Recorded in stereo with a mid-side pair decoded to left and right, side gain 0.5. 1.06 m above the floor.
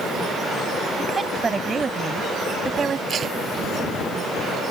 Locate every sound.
1.0 s a woman speaking: 30° right; by 3.0 s 40° right
3.1 s tape being pulled: 45° right